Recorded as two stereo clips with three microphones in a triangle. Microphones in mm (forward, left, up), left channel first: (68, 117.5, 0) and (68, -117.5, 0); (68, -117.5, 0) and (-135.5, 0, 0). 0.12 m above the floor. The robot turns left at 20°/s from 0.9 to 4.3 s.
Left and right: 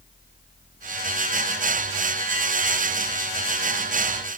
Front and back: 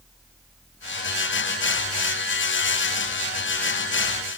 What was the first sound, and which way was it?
Only background noise.